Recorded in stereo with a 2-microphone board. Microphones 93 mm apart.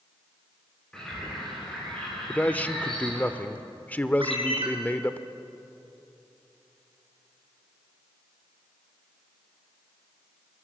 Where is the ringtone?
65° right (ahead or behind), 4 m.